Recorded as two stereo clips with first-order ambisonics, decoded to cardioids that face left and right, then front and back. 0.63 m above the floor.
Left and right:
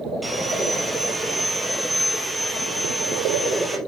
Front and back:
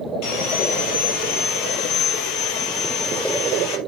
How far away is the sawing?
About 2.5 m.